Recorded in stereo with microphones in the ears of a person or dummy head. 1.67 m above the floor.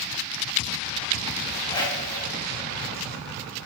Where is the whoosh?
25° left (ahead or behind), 5 m.